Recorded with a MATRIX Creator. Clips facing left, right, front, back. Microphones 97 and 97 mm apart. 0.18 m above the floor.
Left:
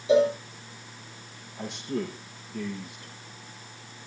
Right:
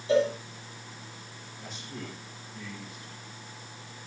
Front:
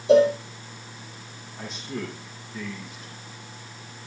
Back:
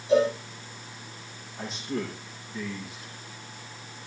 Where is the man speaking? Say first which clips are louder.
Left 11 dB, back 2 dB; 90° left, 7 m.